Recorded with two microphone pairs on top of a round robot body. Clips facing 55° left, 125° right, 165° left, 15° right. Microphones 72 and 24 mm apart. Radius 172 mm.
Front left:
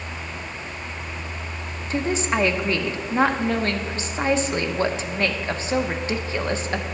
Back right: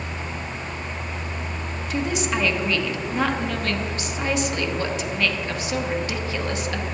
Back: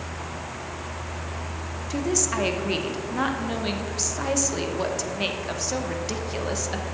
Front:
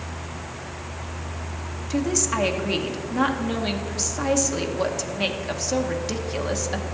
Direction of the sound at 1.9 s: 75° left.